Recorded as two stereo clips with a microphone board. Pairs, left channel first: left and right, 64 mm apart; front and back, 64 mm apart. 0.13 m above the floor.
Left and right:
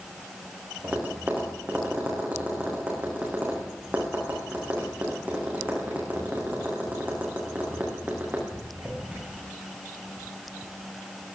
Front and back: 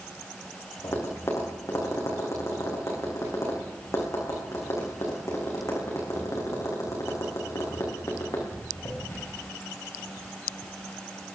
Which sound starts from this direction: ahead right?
Tapping, at 0.8 s.